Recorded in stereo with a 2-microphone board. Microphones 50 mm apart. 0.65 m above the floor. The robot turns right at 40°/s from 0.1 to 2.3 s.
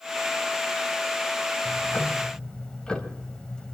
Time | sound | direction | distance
1.6 | ticking | 45° left (ahead or behind) | 2.5 m